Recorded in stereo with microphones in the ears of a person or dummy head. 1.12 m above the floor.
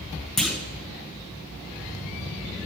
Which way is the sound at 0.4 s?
5° right (ahead or behind).